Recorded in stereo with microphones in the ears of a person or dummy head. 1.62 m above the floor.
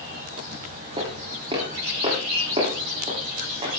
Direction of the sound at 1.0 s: 20° right (ahead or behind).